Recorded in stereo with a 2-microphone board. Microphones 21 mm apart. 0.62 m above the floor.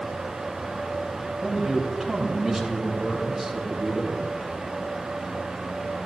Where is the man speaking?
15° right (ahead or behind), 4 m.